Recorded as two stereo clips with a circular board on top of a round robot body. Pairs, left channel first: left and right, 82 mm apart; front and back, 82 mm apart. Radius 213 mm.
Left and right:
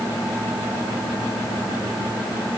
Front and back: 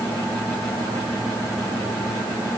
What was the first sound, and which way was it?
Only background noise.